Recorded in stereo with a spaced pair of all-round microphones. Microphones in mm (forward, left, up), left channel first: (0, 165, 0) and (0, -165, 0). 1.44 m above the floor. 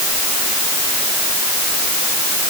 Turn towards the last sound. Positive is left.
No sound to turn to.